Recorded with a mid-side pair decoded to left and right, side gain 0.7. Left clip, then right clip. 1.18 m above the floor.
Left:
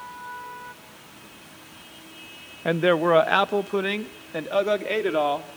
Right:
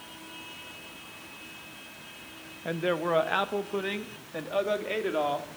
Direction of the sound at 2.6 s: 40° left.